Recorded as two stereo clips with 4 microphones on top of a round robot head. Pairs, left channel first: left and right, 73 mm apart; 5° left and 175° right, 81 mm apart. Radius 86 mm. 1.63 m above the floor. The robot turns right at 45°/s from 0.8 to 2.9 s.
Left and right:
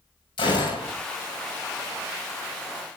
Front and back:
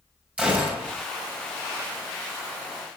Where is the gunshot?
110° left, 6.5 m; by 0.9 s 115° left, 6.5 m.